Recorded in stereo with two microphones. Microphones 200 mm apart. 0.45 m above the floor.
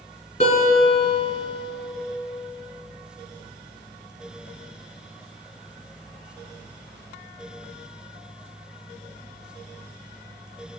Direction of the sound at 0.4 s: 35° left (ahead or behind).